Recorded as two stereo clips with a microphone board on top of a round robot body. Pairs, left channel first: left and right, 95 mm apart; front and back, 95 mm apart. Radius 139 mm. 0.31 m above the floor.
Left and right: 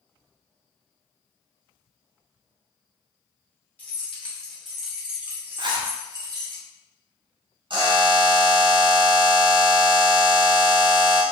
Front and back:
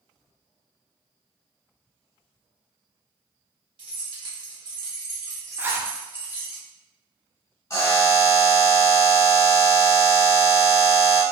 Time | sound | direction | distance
3.8 | keys jangling | 160° left | 1.5 m
5.6 | a zipper | 115° right | 0.6 m
7.7 | a buzzer | 60° right | 1.3 m